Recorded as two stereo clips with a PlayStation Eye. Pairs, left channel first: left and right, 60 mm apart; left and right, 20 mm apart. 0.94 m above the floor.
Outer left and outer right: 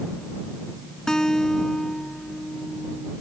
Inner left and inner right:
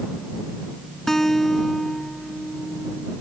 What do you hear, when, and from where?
1.1 s a guitar: 10° left (ahead or behind)